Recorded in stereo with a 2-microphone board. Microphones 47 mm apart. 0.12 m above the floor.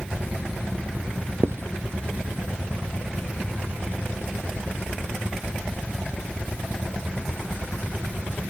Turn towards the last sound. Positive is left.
turn(degrees=-65)  # may be behind; listen again after turning